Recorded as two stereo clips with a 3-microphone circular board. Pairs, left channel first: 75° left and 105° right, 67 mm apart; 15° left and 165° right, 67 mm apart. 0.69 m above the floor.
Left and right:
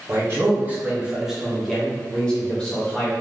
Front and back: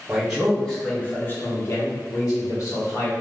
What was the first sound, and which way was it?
A man speaking, 100° right.